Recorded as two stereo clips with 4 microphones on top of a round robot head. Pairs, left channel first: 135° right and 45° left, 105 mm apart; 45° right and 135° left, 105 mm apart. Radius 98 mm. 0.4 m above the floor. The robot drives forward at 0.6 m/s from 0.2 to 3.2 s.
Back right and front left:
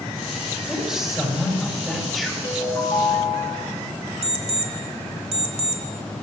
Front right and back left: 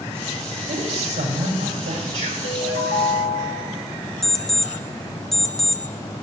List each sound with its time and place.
0.7 s a woman speaking: 130° left, 5.5 m; by 2.3 s 135° left, 6 m
2.4 s a ringtone: 70° right, 3.5 m; by 3.7 s 80° right, 3 m
4.2 s an alarm clock: 40° left, 1.6 m